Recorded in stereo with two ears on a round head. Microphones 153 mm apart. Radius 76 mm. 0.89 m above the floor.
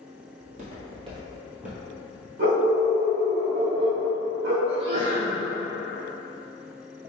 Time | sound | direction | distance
0.4 | footsteps | 50° right (ahead or behind) | 1.5 m
2.4 | a dog barking | 65° right (ahead or behind) | 1.1 m
4.7 | a sneeze | 35° right (ahead or behind) | 0.5 m